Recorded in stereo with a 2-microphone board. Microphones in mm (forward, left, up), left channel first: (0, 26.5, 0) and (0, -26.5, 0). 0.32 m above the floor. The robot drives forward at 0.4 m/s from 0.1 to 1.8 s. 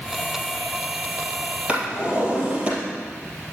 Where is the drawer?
20° right (ahead or behind), 3.5 m.